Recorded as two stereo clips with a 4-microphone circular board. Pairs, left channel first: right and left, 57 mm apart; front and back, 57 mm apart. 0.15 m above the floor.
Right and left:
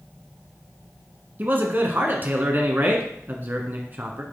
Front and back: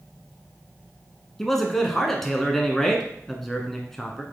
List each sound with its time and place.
1.4 s a man speaking: 80° left, 1.3 m